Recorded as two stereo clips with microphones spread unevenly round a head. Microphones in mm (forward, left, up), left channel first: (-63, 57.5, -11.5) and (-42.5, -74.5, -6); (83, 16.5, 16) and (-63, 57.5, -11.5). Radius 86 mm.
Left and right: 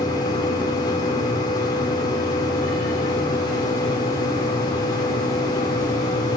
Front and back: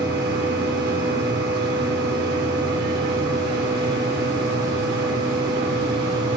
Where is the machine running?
160° left, 6 m.